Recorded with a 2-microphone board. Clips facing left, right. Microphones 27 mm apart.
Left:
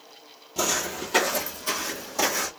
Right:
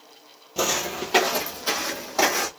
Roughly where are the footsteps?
Centre.